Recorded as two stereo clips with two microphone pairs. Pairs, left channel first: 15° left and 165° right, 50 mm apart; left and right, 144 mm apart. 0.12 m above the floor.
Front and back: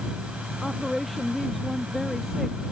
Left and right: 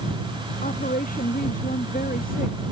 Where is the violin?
I don't hear a violin.